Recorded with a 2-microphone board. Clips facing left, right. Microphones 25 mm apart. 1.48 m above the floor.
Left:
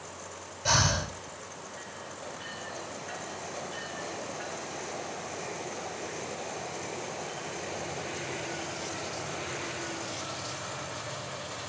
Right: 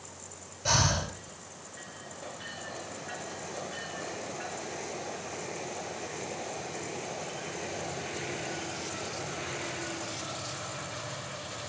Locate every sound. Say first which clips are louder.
0.7 s breathing: left 1 dB; 10° left (ahead or behind), 3.5 m